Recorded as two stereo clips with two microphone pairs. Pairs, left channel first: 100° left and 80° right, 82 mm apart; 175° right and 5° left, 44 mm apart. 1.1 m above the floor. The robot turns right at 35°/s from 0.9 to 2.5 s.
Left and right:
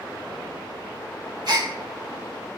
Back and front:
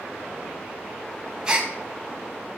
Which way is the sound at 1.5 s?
60° right.